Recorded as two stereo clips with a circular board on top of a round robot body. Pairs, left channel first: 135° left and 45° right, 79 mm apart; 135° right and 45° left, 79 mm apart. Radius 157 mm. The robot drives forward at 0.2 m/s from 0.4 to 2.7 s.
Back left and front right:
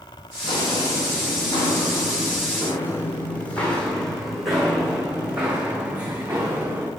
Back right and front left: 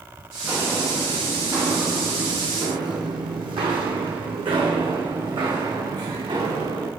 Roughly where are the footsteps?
Left.